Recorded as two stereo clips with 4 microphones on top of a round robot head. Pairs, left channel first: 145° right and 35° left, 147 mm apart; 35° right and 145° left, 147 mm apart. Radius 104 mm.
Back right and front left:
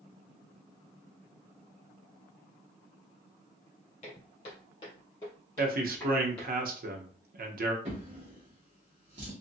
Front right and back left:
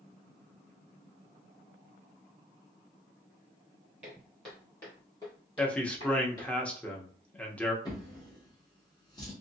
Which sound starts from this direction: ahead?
A drawer, at 7.8 s.